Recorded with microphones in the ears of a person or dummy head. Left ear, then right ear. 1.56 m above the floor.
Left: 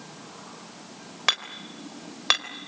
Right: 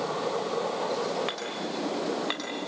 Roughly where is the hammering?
Left.